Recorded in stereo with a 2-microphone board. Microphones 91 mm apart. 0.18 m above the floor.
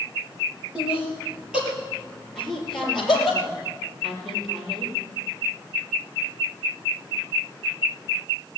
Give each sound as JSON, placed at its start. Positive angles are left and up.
{"t": 0.8, "sound": "laughter", "side_deg": -10, "distance_m": 4.5}
{"t": 2.4, "sound": "a woman speaking", "side_deg": 5, "distance_m": 5.0}